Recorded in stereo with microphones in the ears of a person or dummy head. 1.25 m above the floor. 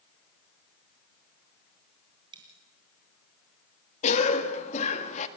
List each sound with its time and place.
2.3 s a dropped coin: 30° right (ahead or behind), 2.5 m
4.0 s a cough: 35° left (ahead or behind), 1.7 m